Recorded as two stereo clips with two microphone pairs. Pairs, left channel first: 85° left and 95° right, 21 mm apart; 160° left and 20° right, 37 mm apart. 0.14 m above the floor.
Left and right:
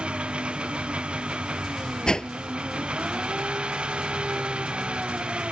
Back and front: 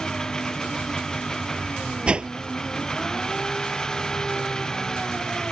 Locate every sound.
0.0 s an engine running: 125° right
2.1 s a whoosh: 40° left